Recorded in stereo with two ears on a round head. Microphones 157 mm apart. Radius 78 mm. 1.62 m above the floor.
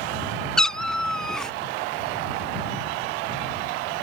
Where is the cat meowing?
5° left (ahead or behind).